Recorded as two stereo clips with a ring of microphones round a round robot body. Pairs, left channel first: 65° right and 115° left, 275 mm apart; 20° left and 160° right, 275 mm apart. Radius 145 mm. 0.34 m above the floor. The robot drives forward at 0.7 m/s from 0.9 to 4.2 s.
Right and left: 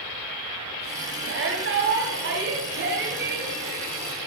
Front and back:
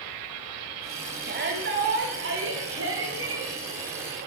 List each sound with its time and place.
1.2 s a shout: 150° left, 2.5 m; by 3.5 s 165° left, 4 m